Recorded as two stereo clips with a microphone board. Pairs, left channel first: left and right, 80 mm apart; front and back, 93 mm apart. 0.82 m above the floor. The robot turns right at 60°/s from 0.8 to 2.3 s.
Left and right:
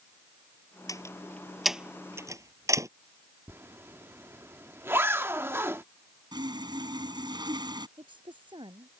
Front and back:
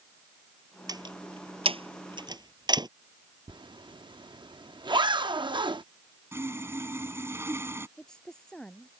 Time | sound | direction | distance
0.9 | a door slam | 135° left | ?
3.5 | a zipper | 150° right | ?
6.3 | sawing | 115° right | ?
8.0 | a woman speaking | 80° right | ?